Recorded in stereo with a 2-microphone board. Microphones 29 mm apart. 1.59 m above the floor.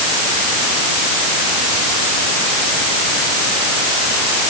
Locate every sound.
Only background noise.